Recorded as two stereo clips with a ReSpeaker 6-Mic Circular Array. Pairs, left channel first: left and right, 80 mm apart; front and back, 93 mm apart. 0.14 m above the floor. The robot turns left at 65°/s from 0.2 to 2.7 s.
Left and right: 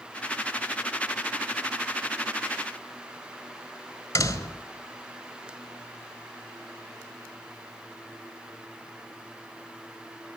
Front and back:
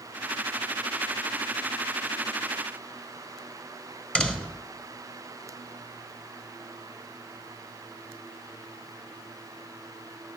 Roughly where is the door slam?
Left.